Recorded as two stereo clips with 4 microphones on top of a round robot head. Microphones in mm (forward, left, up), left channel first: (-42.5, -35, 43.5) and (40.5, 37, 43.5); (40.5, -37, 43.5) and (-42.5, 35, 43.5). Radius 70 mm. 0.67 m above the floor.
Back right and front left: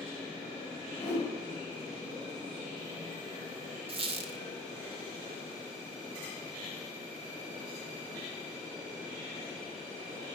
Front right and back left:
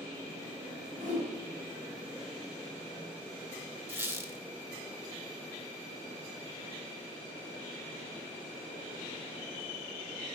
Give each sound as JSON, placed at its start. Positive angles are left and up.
{"t": 1.0, "sound": "a whoosh", "azimuth_deg": 155, "distance_m": 4.5}
{"t": 3.9, "sound": "a squeak", "azimuth_deg": 70, "distance_m": 1.1}